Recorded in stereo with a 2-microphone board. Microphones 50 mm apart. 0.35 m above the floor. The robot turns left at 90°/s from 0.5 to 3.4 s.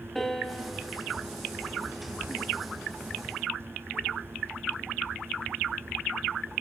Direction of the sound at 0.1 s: 5° left.